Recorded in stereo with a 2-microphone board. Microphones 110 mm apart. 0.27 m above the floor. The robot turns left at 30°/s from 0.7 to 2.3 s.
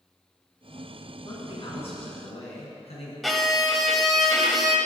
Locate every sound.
1.2 s a man speaking: 135° left, 3 m; by 3.1 s 105° left, 3 m
3.2 s a violin: centre (ahead or behind), 0.9 m